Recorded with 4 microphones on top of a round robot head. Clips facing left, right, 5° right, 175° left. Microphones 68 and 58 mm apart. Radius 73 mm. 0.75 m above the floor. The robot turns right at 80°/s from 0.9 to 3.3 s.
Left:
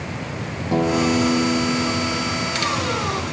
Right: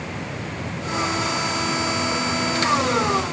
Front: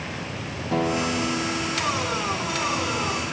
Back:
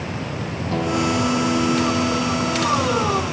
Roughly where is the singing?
No singing in this recording.